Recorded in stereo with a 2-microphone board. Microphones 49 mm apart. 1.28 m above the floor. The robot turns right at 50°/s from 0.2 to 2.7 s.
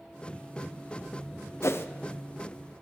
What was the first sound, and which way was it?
A whoosh, 65° left (ahead or behind).